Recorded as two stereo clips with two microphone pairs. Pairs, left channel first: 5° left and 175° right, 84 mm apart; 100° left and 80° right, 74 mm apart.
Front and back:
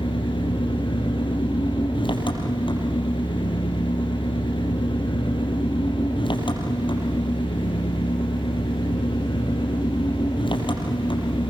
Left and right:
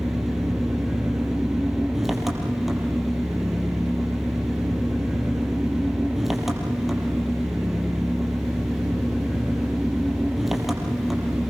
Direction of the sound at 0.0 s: 10° left.